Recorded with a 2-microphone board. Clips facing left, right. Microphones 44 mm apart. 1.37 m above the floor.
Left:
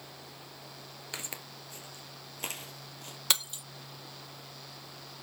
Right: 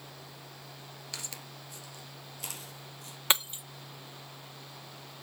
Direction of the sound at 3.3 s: 25° right (ahead or behind).